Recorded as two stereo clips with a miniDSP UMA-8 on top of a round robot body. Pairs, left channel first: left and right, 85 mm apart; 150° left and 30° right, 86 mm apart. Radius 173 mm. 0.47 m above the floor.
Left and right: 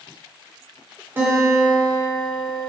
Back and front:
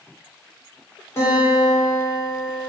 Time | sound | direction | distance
1.2 | a guitar | 155° right | 2 m